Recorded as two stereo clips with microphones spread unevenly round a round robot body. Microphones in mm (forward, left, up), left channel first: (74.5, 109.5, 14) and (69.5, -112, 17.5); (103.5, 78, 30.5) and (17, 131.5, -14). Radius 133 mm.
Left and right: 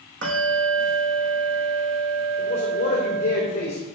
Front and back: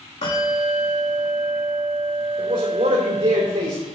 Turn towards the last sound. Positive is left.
turn(degrees=150)